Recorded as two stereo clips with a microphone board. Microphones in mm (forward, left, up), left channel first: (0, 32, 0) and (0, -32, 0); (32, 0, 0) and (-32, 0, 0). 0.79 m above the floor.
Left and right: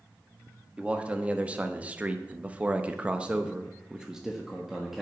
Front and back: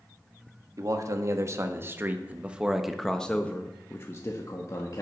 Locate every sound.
0.8 s a man speaking: 160° right, 1.5 m; by 5.0 s 5° right, 1.4 m